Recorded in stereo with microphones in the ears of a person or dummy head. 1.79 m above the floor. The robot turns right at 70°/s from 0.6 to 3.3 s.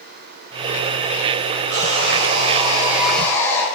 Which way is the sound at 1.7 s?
100° right.